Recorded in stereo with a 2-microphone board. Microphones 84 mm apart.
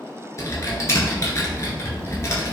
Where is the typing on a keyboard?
40° left (ahead or behind), 1.3 m.